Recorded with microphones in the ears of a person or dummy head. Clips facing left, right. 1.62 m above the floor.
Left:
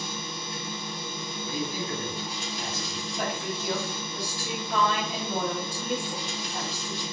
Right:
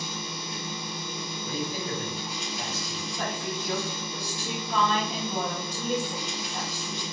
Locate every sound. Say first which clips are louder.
0.0 s a machine running: even; 5° left (ahead or behind), 1.0 m
1.4 s a man speaking: even; 30° right (ahead or behind), 1.4 m
3.2 s a woman speaking: left 1 dB; 10° left (ahead or behind), 1.1 m